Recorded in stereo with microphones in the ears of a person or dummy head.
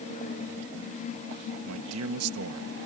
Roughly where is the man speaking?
Right.